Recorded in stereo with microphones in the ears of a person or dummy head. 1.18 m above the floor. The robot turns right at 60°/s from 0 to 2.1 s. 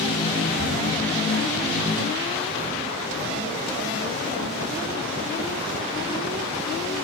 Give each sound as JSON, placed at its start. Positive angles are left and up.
{"t": 0.6, "sound": "a cupboard door", "side_deg": 0, "distance_m": 1.8}